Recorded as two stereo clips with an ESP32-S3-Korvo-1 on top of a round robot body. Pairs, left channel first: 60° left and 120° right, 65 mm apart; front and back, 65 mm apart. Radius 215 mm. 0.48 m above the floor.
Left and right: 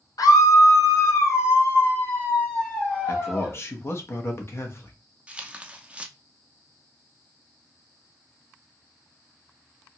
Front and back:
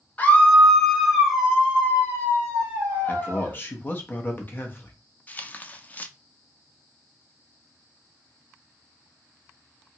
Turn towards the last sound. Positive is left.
turn(degrees=-55)